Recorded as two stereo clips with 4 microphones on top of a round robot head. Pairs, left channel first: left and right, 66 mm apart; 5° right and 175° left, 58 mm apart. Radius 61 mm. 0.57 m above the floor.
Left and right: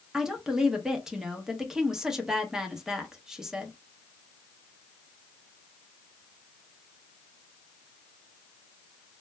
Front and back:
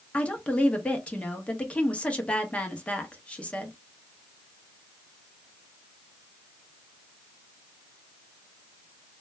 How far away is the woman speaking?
About 0.7 m.